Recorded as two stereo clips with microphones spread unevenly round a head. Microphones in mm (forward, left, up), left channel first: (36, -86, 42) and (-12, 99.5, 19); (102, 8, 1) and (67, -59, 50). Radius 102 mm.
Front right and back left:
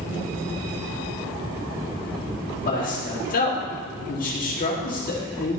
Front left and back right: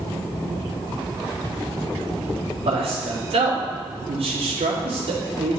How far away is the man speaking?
About 1.9 m.